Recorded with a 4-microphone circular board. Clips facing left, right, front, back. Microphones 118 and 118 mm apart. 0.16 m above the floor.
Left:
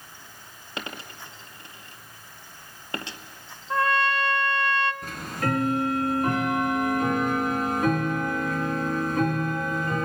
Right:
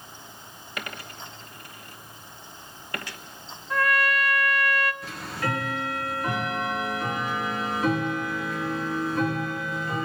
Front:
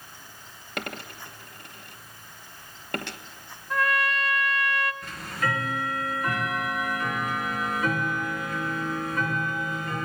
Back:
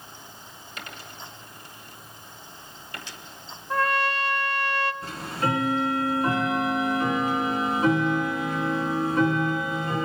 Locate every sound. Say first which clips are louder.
0.8 s a dropped coin: left 1 dB, front 6 dB; 25° left, 1.3 m
3.7 s a trumpet: left 1 dB, back 2 dB; 135° left, 0.9 m
5.0 s ticking: left 2 dB, back 3 dB; 125° left, 3.5 m